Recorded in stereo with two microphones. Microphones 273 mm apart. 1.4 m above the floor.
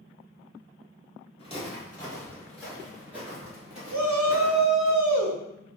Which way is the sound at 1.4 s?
25° left (ahead or behind).